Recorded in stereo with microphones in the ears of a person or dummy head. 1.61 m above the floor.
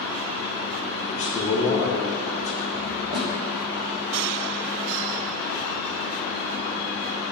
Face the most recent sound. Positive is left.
turn(degrees=-30)  # may be behind; listen again after turning